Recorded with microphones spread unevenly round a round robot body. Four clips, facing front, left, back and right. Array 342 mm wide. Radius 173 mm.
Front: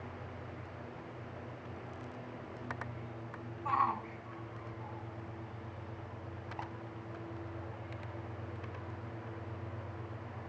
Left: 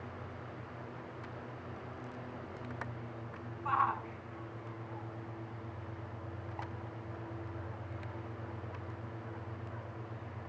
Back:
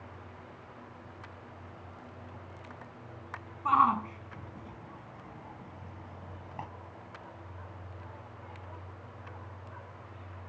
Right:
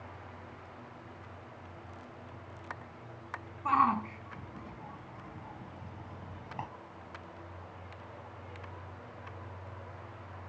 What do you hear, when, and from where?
3.6 s a shout: 130° right; by 6.7 s 120° right